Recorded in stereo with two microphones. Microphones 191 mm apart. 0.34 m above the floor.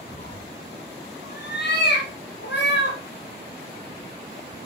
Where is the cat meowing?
45° left (ahead or behind), 2 m; by 3.0 s 65° left (ahead or behind), 3.5 m.